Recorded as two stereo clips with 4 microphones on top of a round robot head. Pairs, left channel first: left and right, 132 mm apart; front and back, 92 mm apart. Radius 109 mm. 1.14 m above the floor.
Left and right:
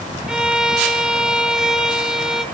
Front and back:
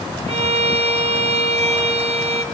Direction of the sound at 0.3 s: 175° right.